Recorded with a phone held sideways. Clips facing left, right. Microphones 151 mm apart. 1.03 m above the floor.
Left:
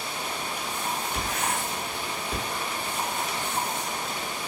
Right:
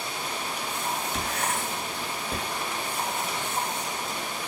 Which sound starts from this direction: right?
Writing, at 1.1 s.